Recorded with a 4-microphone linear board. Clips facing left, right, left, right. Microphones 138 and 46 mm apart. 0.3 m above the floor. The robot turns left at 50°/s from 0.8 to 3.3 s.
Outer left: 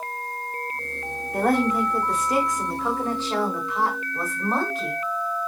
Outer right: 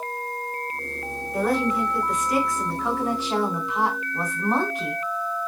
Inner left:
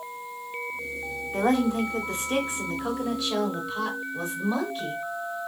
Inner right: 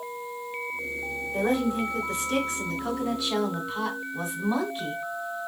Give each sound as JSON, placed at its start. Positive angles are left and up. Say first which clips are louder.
{"t": 1.3, "sound": "a woman speaking", "louder": "outer left 2 dB, inner left 2 dB", "azimuth_deg": 80, "distance_m": 2.5}